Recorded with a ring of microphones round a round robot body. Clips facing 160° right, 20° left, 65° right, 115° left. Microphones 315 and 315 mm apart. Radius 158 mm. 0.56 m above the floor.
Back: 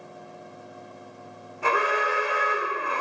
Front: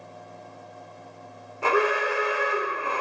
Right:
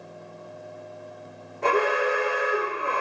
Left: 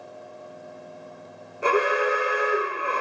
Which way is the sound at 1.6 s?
30° left.